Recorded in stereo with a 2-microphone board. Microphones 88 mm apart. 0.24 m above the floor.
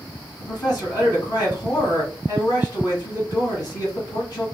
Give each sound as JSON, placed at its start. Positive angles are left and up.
{"t": 0.4, "sound": "a man speaking", "side_deg": 40, "distance_m": 1.7}